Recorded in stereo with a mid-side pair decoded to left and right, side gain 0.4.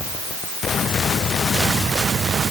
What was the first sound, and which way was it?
Only background noise.